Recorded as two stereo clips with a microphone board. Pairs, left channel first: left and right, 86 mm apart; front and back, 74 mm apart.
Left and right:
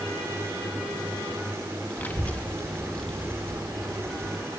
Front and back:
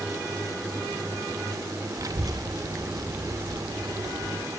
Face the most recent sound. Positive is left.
turn(degrees=175)